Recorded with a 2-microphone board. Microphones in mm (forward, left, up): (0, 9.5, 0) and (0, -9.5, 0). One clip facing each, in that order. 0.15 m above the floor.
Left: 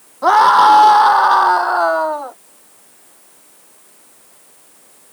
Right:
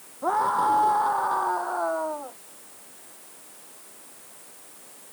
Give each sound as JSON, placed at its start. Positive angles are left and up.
{"t": 0.2, "sound": "a scream", "side_deg": 75}